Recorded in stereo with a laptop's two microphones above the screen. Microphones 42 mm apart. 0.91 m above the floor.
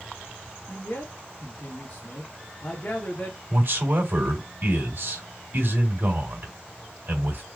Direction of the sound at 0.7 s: 35° left (ahead or behind).